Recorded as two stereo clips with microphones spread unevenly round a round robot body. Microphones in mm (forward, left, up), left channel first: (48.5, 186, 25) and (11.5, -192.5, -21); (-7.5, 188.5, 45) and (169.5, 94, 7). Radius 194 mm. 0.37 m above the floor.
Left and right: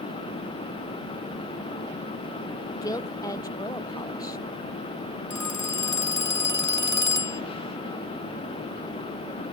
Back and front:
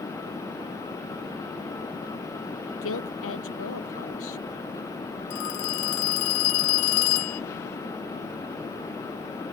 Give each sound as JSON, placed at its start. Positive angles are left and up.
{"t": 2.8, "sound": "a woman speaking", "azimuth_deg": 165}
{"t": 5.3, "sound": "a phone ringing", "azimuth_deg": 170}